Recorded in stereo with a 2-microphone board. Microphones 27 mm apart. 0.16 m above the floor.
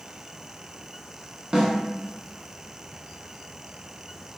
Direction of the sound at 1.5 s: 30° right (ahead or behind).